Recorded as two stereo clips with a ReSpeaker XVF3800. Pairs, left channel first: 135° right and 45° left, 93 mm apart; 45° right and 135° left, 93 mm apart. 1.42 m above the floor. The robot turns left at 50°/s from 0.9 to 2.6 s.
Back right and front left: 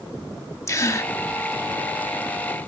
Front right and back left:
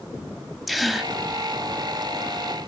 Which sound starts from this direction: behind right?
A gasp, at 0.7 s.